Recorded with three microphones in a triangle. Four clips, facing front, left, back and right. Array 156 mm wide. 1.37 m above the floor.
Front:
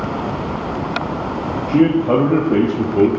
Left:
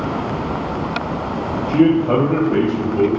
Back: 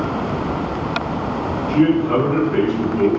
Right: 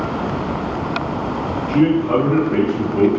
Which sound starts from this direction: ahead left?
A man speaking, at 1.7 s.